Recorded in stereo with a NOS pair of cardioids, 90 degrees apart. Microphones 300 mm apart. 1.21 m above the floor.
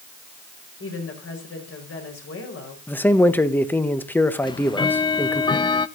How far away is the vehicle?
I don't hear a vehicle.